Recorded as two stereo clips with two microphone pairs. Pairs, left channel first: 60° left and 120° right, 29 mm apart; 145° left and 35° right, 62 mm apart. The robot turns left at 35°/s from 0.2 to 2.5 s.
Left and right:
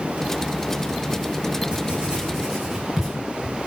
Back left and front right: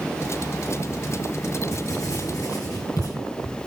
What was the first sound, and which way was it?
Writing, 170° right.